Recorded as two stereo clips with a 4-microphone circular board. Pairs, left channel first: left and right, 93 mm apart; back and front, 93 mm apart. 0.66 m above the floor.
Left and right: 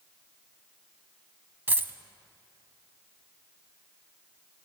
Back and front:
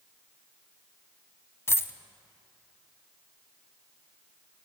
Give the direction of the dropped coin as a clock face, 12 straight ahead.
5 o'clock.